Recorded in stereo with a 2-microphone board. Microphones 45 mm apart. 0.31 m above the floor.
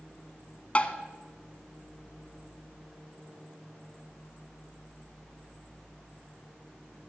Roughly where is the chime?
I don't hear a chime.